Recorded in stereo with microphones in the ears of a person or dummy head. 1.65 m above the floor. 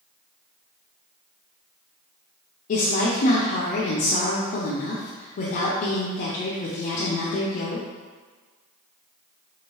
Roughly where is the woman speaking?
Left.